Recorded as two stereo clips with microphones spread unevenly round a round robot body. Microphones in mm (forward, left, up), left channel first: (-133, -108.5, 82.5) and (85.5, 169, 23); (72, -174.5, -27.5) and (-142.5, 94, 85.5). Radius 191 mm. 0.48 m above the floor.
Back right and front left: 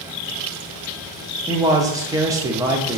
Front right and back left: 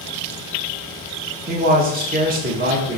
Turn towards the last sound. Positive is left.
turn(degrees=55)